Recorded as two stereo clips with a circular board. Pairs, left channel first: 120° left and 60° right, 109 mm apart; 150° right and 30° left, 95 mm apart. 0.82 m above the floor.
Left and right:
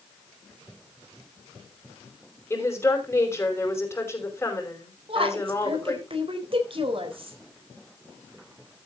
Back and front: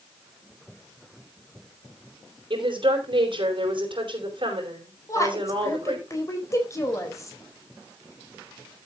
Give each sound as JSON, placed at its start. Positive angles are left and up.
{"t": 2.5, "sound": "a woman speaking", "azimuth_deg": 55, "distance_m": 5.0}
{"t": 5.1, "sound": "a woman speaking", "azimuth_deg": -95, "distance_m": 3.5}